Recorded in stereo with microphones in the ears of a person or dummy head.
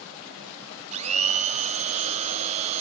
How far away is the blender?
About 2.5 m.